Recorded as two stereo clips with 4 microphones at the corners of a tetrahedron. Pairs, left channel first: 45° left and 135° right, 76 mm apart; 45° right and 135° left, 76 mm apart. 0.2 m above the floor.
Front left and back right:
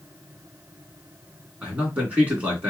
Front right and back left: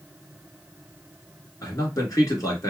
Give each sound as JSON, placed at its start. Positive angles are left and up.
{"t": 1.6, "sound": "a man speaking", "azimuth_deg": -70, "distance_m": 1.9}